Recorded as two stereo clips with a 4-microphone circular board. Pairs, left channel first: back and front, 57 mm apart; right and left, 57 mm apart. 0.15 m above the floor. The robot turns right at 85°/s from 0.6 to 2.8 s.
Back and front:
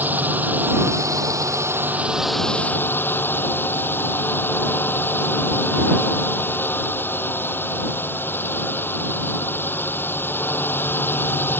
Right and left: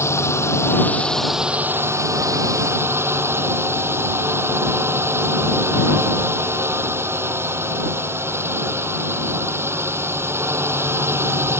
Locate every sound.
0.0 s a drone: 55° right; by 11.6 s 130° left